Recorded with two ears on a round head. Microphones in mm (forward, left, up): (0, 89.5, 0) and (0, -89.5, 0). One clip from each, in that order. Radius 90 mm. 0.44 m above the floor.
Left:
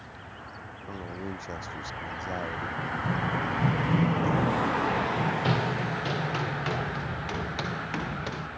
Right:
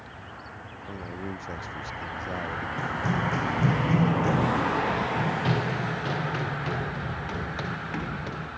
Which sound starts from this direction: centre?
A man speaking, at 0.9 s.